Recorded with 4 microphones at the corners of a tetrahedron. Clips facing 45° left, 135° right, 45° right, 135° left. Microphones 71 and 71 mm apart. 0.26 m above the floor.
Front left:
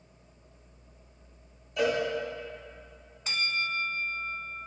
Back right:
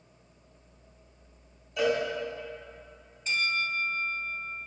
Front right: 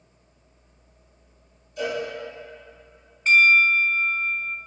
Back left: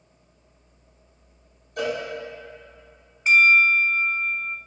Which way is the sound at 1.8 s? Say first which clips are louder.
Back right 1 dB, back left 1 dB; 130° left.